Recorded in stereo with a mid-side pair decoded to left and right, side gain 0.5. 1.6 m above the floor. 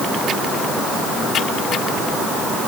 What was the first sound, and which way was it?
Only background noise.